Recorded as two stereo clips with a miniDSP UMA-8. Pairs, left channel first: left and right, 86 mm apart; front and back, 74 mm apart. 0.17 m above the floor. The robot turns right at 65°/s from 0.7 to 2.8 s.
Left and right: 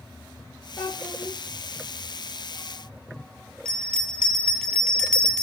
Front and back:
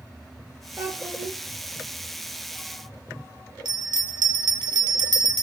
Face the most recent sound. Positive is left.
turn(degrees=170)